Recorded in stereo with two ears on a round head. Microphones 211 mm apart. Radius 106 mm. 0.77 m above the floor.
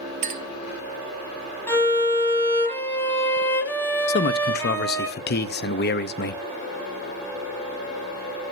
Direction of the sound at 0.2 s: 30° right (ahead or behind).